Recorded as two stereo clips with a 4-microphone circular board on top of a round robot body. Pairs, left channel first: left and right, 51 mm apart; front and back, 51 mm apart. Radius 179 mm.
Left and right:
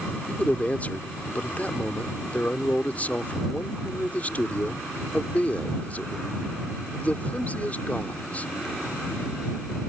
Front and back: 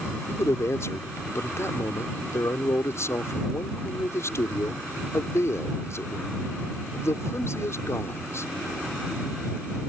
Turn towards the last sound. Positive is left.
turn(degrees=30)